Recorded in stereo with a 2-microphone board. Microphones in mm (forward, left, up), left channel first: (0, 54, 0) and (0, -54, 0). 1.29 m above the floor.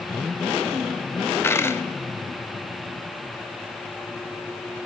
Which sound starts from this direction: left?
A dropped coin, at 1.4 s.